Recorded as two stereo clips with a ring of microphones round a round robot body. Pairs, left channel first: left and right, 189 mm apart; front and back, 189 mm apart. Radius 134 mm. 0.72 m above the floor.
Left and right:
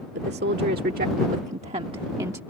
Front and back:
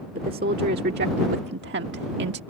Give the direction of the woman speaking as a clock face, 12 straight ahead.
4 o'clock.